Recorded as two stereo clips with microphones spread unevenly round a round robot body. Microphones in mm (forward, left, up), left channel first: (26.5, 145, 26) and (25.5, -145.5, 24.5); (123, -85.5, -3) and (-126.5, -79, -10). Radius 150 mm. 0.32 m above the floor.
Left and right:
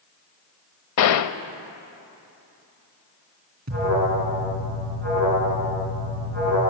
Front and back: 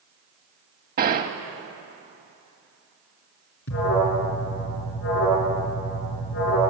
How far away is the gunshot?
About 0.5 m.